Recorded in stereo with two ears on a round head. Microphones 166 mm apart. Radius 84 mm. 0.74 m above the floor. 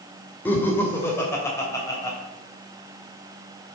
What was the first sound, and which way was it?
Laughter, 10° left (ahead or behind).